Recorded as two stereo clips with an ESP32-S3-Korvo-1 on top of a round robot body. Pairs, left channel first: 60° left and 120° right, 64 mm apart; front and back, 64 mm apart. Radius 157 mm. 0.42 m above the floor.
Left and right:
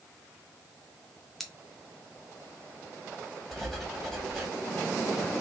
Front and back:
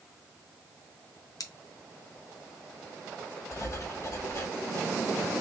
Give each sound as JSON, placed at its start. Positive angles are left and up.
{"t": 1.4, "sound": "scissors", "azimuth_deg": -30, "distance_m": 0.9}
{"t": 3.5, "sound": "writing", "azimuth_deg": -30, "distance_m": 1.5}